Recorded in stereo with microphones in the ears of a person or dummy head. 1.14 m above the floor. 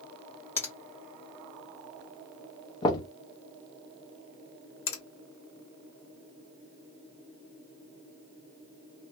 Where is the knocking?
30° left (ahead or behind), 0.7 m.